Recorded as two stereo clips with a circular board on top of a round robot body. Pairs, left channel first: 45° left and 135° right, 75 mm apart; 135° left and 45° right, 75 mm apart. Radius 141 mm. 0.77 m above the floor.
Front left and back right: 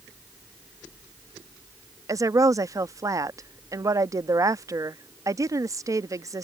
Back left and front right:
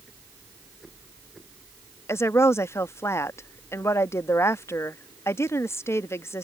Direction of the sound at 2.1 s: 175° right.